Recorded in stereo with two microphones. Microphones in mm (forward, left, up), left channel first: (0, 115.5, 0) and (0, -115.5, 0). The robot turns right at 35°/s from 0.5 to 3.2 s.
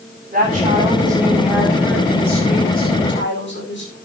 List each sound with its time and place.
0.3 s a woman speaking: 40° right, 10 m; by 4.0 s 55° left, 10 m